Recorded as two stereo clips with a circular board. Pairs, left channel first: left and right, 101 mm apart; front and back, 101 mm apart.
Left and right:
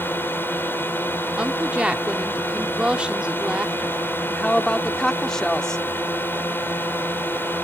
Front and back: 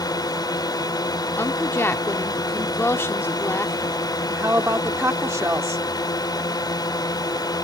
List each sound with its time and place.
0.0 s a drone: 30° left
1.4 s a woman speaking: 25° right
4.3 s a woman speaking: 165° left